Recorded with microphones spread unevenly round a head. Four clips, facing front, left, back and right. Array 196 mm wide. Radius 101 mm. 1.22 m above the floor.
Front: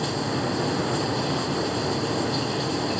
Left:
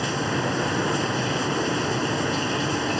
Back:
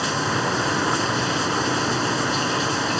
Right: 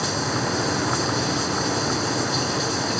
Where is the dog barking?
I don't hear a dog barking.